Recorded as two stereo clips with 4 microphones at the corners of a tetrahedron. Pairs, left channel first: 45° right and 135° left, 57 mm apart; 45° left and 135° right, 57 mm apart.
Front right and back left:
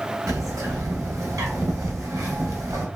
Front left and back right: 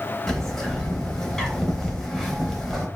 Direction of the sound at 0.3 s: 130° left.